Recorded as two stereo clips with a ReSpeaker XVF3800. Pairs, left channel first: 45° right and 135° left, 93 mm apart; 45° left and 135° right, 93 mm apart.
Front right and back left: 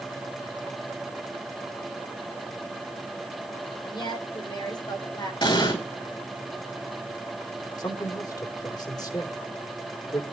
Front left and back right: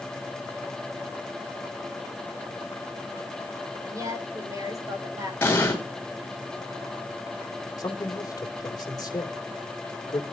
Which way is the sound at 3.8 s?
85° right.